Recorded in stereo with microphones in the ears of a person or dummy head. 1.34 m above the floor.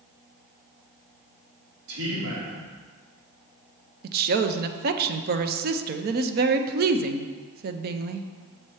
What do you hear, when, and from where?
1.9 s a man speaking: 70° right (ahead or behind), 3 m
4.0 s a woman speaking: 50° right (ahead or behind), 0.6 m